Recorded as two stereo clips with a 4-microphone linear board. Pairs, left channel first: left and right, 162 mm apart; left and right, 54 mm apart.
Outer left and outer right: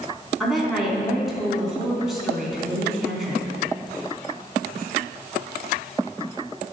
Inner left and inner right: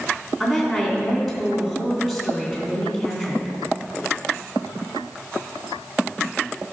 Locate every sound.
0.4 s a woman speaking: centre (ahead or behind), 3 m